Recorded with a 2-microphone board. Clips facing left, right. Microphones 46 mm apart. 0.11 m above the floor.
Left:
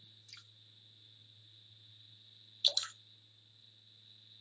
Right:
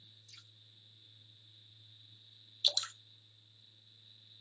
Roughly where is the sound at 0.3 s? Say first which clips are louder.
Left 3 dB; left.